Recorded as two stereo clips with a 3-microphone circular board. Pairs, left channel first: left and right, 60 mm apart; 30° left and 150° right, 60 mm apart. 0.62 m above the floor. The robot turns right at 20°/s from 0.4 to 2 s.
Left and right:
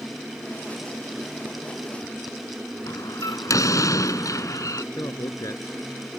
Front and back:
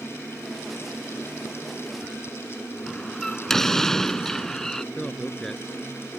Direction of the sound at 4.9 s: 115° left.